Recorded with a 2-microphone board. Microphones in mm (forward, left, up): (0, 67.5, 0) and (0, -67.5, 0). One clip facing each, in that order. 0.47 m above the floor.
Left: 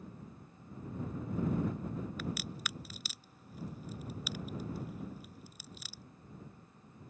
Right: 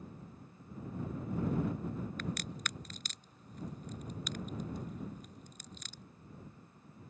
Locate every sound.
2.2 s a crack: 5° left (ahead or behind)